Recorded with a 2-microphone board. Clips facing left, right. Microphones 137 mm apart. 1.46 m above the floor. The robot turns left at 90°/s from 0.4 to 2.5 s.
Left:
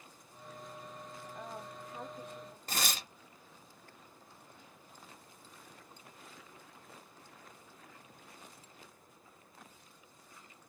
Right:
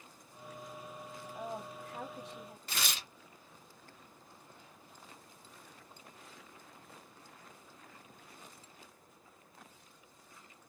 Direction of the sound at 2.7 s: 45° left (ahead or behind).